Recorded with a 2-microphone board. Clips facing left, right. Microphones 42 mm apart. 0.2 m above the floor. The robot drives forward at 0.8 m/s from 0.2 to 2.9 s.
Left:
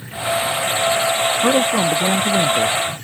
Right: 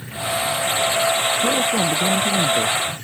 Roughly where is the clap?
I don't hear a clap.